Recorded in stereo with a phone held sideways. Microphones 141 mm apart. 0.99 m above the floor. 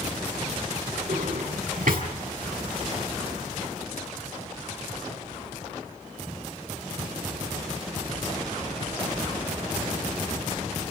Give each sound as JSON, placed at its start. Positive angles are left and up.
{"t": 1.1, "sound": "a drawer", "side_deg": -80, "distance_m": 5.0}